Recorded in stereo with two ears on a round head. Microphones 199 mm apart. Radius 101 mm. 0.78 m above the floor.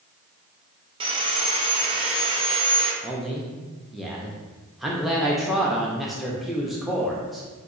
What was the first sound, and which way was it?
Sawing, 25° right (ahead or behind).